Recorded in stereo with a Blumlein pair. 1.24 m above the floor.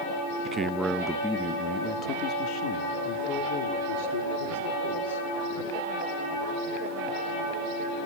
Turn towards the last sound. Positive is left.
turn(degrees=55)